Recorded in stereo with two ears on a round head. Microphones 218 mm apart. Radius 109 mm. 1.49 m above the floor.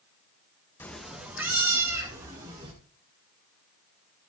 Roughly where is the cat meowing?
Centre.